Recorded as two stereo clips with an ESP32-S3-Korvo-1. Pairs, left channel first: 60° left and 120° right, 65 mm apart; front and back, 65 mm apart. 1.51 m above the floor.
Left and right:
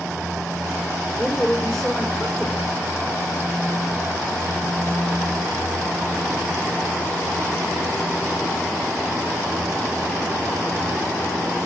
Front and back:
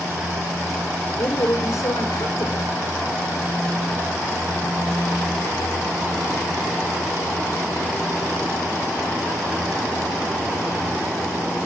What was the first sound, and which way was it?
A woman speaking, 20° right.